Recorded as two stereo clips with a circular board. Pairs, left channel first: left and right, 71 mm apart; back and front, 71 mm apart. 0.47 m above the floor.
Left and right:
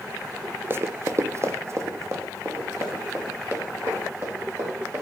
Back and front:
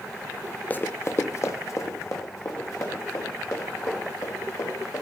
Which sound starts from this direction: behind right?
Running footsteps, at 0.7 s.